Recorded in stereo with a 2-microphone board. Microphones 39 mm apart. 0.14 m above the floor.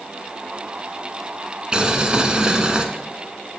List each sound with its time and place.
1.7 s boiling: 20° right (ahead or behind), 1.1 m